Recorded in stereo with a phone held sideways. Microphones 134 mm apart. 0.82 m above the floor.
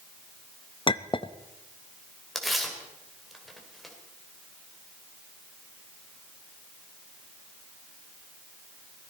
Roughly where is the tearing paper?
Centre.